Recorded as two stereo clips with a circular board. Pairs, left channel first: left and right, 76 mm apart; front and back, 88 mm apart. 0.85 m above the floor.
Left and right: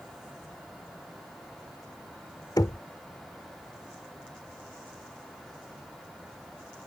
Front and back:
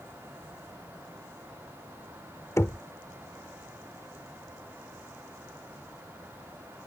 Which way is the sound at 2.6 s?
60° left.